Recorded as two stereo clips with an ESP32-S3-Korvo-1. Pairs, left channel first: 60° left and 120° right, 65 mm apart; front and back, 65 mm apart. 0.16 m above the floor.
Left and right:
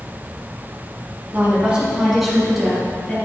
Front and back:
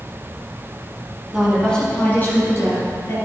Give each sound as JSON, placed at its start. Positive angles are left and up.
{"t": 1.3, "sound": "a woman speaking", "azimuth_deg": -100, "distance_m": 1.6}